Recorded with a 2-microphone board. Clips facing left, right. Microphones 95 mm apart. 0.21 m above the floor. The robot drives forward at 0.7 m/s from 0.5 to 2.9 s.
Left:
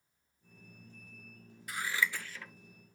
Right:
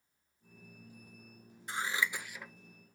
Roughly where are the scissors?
Right.